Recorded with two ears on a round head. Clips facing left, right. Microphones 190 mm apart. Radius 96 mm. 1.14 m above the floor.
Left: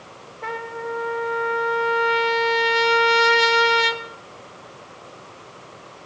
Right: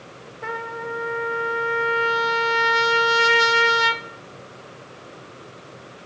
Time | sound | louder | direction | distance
0.4 | a trumpet | left 1 dB | 5° right (ahead or behind) | 0.8 m